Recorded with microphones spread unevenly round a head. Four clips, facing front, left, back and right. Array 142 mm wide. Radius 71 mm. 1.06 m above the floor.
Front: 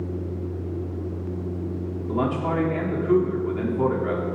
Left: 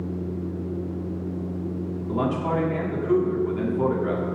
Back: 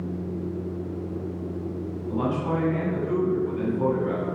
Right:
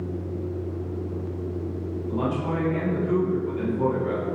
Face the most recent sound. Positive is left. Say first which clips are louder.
# left 2 dB, front 2 dB
turn(degrees=30)